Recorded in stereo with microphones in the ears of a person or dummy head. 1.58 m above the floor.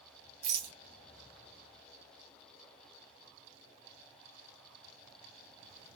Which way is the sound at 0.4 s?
35° right (ahead or behind).